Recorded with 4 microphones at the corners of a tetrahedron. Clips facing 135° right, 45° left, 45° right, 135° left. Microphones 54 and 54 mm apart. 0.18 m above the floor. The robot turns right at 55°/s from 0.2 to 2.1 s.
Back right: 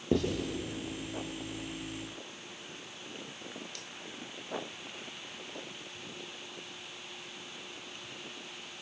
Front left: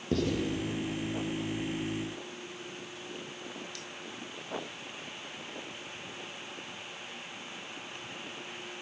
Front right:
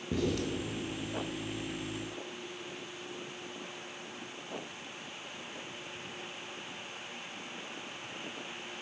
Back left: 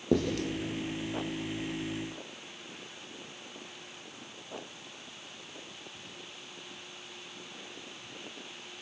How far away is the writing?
About 5 m.